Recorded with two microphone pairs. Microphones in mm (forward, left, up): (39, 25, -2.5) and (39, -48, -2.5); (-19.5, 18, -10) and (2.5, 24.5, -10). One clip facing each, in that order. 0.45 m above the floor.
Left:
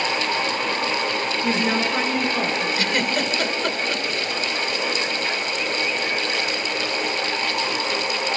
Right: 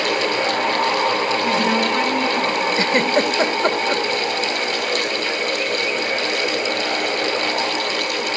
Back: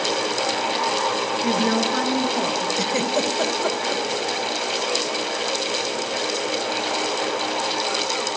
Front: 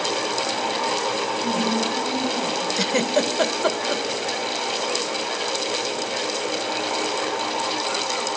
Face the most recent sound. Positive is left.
turn(degrees=-45)